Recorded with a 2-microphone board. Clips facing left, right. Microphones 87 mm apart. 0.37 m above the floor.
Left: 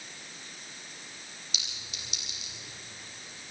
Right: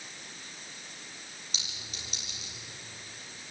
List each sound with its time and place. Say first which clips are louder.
1.5 s a clink: right 1 dB; 35° right (ahead or behind), 9.5 m